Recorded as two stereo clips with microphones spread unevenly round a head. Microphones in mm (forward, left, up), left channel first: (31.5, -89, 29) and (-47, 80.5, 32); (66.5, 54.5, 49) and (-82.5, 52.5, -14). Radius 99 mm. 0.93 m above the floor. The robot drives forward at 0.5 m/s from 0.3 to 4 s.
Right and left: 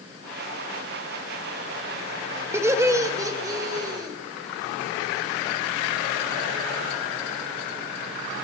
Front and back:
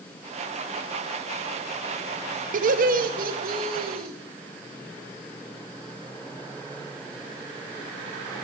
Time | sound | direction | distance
2.5 | laughter | 170° right | 0.9 m